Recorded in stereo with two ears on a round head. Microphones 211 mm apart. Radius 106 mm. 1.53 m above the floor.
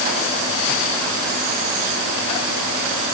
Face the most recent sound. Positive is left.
No sound to turn to.